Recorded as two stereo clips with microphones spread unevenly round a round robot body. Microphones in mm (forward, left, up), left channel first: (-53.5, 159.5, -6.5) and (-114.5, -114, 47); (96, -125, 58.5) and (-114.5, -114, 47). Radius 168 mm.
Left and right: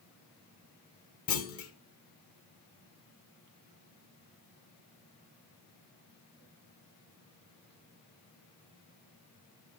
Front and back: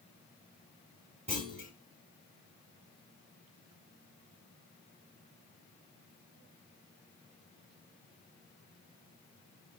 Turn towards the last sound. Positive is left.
turn(degrees=110)